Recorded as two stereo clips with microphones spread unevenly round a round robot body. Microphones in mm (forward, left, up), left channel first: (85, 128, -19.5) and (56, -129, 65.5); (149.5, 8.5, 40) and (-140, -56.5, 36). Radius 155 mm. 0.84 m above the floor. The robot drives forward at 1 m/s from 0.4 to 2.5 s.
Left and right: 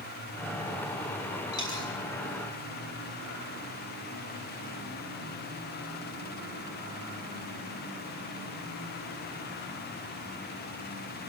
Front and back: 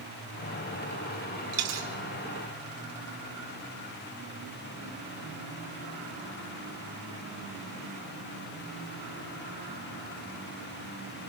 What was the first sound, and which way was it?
A dropped coin, 160° left.